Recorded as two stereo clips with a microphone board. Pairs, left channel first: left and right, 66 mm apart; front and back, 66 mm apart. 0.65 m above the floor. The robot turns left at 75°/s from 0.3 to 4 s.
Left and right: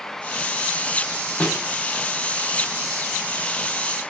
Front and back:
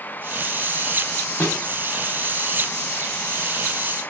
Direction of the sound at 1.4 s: 40° left.